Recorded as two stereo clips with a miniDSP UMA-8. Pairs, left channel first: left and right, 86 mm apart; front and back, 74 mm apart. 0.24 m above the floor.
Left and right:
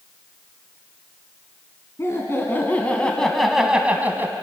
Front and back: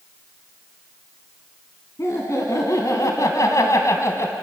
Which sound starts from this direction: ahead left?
Laughter, at 2.0 s.